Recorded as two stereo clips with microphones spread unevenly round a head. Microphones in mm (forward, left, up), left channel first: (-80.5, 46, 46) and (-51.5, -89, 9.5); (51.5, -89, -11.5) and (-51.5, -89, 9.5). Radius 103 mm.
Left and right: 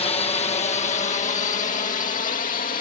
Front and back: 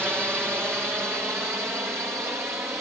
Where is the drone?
100° left.